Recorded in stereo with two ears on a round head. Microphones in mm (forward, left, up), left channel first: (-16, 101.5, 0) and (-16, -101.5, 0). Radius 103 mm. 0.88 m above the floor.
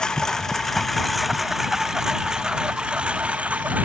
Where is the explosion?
I don't hear an explosion.